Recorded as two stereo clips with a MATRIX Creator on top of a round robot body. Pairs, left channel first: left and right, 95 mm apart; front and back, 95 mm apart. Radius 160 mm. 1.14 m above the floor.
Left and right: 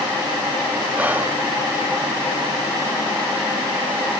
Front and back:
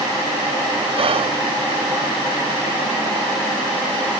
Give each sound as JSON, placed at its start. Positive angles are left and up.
{"t": 1.0, "sound": "whispering", "azimuth_deg": -165, "distance_m": 0.7}